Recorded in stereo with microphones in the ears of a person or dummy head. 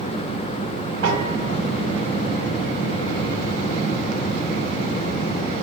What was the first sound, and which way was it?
A piano, 60° right (ahead or behind).